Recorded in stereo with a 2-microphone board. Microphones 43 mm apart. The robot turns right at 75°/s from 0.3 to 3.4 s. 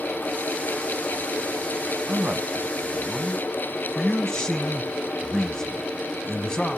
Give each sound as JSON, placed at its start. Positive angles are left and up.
{"t": 2.1, "sound": "a man speaking", "azimuth_deg": -75, "distance_m": 1.4}